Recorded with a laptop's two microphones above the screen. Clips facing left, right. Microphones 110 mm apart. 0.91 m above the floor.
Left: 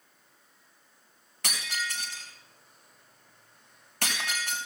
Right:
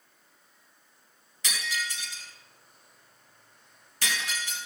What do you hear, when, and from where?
1.4 s breaking glass: 60° left (ahead or behind), 3 m